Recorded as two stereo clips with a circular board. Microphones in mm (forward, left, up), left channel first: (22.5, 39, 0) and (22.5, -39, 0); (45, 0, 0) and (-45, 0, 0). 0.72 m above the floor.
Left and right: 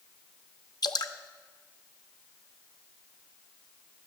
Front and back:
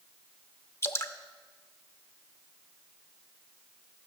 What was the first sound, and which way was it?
Dripping, 60° left.